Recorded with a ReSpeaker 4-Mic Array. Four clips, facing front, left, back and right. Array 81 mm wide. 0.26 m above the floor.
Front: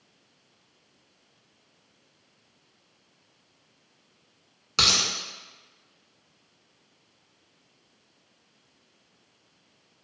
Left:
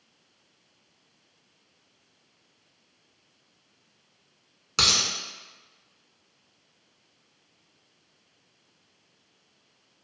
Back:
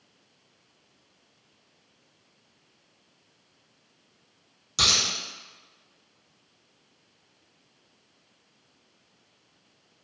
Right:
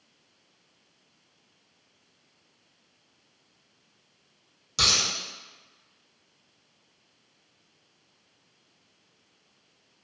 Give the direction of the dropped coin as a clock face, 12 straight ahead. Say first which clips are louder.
Left 1 dB, front 1 dB; 10 o'clock.